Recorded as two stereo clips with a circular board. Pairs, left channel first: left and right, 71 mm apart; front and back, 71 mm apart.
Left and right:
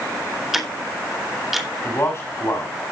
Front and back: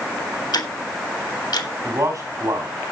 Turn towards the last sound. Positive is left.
turn(degrees=140)